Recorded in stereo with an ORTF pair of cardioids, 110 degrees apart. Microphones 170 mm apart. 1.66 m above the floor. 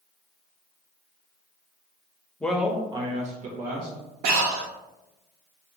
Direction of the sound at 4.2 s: 70° right.